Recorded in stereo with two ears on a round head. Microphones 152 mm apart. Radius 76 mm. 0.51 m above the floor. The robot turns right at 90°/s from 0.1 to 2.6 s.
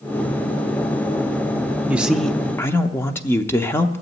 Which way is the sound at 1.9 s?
10° right (ahead or behind).